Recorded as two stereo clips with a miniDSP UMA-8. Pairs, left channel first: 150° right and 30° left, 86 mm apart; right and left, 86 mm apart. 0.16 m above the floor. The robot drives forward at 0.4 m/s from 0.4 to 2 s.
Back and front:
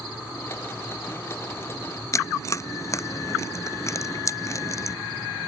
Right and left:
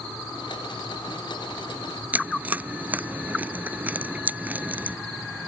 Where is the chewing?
160° left.